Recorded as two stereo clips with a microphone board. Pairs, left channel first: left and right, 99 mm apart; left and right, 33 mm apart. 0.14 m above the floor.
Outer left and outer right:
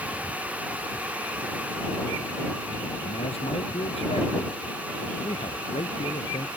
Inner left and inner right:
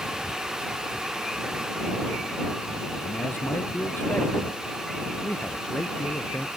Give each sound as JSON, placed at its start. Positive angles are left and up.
{"t": 3.0, "sound": "a man speaking", "side_deg": 80}